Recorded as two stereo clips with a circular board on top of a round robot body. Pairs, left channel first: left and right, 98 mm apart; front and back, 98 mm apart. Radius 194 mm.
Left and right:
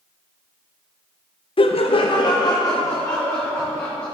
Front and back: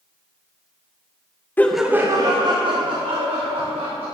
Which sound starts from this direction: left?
Laughter, at 1.6 s.